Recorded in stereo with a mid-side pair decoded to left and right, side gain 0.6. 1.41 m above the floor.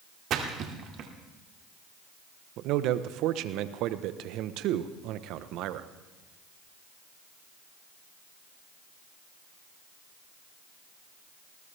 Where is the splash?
55° right, 2 m.